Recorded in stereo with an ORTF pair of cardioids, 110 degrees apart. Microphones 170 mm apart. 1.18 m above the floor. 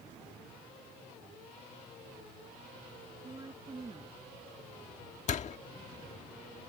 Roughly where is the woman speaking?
Ahead right.